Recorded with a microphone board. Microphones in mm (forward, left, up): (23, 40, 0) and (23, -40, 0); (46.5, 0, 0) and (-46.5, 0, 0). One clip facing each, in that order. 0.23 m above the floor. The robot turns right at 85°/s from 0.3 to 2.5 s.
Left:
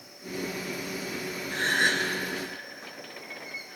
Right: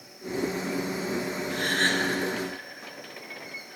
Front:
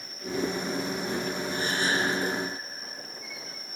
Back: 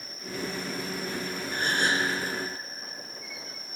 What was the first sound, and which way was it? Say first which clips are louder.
A gasp: left 1 dB, back 2 dB; 140° left.